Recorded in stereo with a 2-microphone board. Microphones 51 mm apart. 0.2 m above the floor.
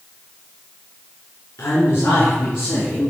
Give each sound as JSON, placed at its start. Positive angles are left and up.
{"t": 1.6, "sound": "a man speaking", "side_deg": 55, "distance_m": 1.9}